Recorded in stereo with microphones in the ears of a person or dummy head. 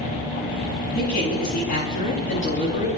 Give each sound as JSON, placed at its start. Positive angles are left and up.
{"t": 0.9, "sound": "a man speaking", "side_deg": 50, "distance_m": 9.5}